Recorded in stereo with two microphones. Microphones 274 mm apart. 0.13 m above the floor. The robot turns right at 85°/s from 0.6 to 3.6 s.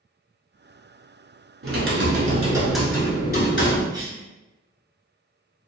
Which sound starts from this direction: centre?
A cough, at 3.9 s.